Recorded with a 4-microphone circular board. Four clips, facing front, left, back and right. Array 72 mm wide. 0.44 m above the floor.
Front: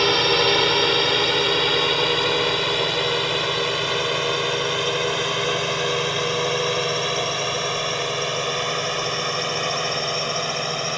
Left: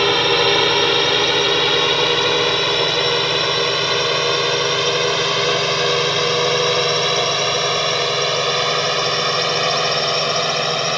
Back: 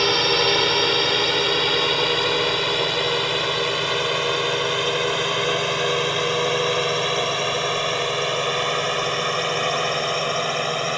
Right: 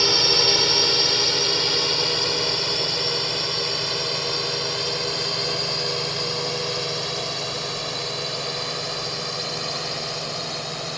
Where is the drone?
85° left; by 11.0 s 105° left.